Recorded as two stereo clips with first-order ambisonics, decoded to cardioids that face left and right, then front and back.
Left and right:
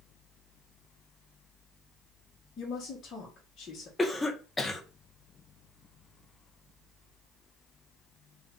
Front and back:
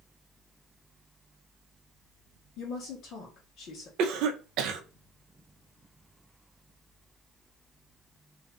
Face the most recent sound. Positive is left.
turn(degrees=170)